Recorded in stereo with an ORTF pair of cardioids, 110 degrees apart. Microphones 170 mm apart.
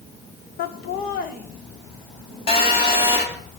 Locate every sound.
0.6 s laughter: 65° left, 0.9 m; by 3.1 s 40° left, 3 m
2.5 s a phone buzzing: 30° left, 3 m